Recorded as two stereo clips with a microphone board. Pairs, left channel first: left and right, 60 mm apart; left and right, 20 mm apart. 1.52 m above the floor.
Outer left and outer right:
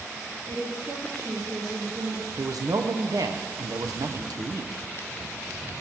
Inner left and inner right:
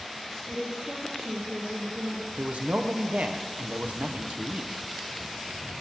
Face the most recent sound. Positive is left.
turn(degrees=-85)